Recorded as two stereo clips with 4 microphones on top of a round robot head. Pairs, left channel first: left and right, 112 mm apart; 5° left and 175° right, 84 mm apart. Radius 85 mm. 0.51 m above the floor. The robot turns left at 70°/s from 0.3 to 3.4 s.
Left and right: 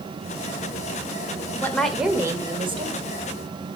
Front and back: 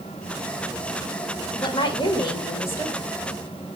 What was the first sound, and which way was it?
A woman speaking, 20° left.